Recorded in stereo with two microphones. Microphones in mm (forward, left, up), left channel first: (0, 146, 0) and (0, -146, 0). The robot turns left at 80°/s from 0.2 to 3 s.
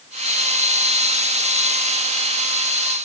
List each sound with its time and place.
Only background noise.